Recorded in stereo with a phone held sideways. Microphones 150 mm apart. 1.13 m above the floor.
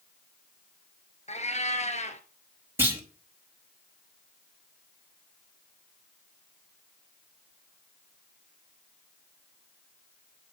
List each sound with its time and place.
1.3 s a cat meowing: 50° left (ahead or behind), 1.6 m
2.8 s a clunk: 15° right (ahead or behind), 4.5 m